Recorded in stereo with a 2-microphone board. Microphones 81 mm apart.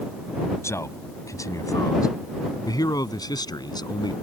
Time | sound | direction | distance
0.6 | a man speaking | 35° left (ahead or behind) | ?